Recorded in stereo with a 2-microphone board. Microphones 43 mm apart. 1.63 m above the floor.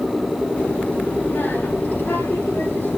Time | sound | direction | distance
0.6 | a child speaking | 35° left (ahead or behind) | 2.5 m